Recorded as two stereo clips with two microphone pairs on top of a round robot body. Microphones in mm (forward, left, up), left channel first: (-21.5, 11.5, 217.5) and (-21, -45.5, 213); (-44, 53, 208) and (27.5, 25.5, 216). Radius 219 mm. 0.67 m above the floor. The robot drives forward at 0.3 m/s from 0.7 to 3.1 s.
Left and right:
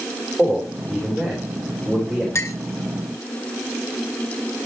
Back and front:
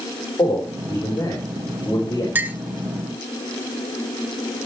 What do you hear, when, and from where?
0.4 s a man speaking: straight behind, 4.5 m
2.4 s a clink: 45° left, 0.8 m; by 2.6 s 50° left, 0.7 m